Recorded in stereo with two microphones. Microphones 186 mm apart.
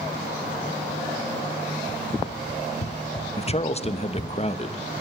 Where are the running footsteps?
70° left (ahead or behind), 2.5 m; by 4.4 s 45° left (ahead or behind), 1.4 m.